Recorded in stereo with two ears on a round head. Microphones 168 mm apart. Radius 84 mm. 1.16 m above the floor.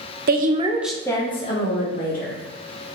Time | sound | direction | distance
0.3 | a woman speaking | 55° right (ahead or behind) | 0.8 m